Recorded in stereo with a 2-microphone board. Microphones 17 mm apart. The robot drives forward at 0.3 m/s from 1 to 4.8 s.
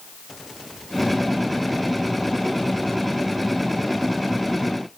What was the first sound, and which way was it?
Only background noise.